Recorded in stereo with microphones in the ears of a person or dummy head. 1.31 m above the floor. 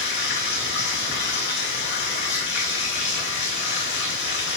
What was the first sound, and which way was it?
Running water, 60° left (ahead or behind).